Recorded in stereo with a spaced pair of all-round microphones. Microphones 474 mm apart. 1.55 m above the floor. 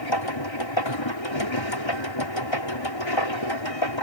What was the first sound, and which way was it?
A machine running, 65° left (ahead or behind).